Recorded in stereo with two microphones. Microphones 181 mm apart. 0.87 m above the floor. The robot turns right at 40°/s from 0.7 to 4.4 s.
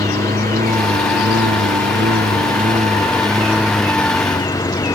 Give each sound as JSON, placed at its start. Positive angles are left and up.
{"t": 0.0, "sound": "a lawn mower", "side_deg": -50}